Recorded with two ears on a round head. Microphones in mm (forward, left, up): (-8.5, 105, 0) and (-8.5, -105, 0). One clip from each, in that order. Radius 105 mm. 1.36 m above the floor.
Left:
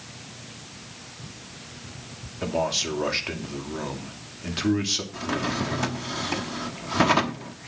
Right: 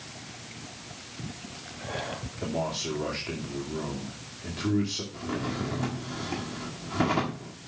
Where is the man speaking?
75° left (ahead or behind), 2.5 m.